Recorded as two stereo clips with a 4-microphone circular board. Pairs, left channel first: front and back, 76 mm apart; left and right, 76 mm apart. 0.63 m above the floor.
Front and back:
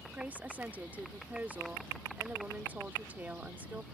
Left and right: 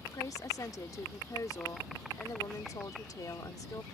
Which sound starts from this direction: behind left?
A woman speaking, at 0.1 s.